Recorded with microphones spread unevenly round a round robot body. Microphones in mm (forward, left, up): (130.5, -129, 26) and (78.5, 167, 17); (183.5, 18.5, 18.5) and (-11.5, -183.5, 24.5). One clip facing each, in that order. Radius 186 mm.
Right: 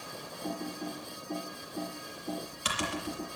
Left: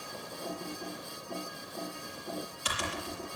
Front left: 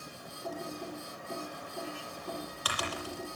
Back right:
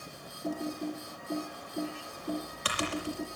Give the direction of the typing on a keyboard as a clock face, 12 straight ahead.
2 o'clock.